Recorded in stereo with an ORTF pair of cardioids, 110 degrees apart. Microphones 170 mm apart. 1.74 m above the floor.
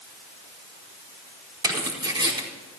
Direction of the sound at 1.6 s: 25° right.